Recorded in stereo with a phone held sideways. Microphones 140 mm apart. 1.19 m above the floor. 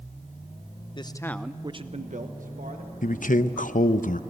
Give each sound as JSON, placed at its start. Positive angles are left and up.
{"t": 0.9, "sound": "a man speaking", "side_deg": 35, "distance_m": 1.0}
{"t": 3.0, "sound": "a man speaking", "side_deg": 75, "distance_m": 0.7}